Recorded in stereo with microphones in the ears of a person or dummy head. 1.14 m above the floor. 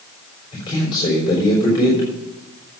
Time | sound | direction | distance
0.5 | a man speaking | 25° left (ahead or behind) | 3.5 m